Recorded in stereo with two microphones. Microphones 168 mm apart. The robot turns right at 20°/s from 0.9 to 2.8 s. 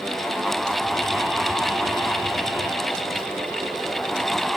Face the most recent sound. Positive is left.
No sound to turn to.